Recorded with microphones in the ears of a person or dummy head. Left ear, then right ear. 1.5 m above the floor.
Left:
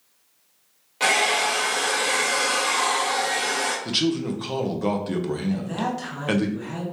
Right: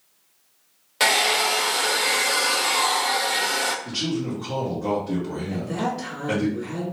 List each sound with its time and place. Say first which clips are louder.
1.0 s a hair dryer: right 1 dB; 30° right (ahead or behind), 0.6 m
3.9 s a man speaking: left 3 dB; 60° left (ahead or behind), 0.8 m
5.5 s a man speaking: right 1 dB; 50° left (ahead or behind), 1.6 m